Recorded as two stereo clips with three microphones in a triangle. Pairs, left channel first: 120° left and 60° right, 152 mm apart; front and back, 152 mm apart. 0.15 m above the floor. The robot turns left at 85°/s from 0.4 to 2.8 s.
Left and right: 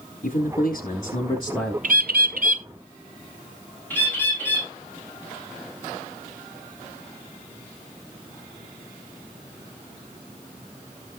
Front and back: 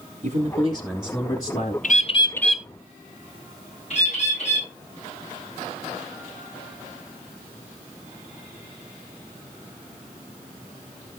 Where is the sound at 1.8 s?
30° right, 0.7 m; by 2.7 s 100° right, 0.7 m.